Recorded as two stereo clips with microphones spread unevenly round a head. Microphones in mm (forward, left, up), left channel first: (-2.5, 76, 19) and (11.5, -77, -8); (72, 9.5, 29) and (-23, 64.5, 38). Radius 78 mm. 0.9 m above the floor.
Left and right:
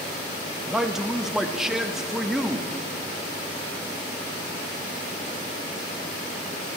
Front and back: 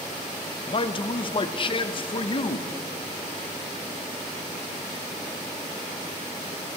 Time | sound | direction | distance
0.7 | a man speaking | 5° right | 0.7 m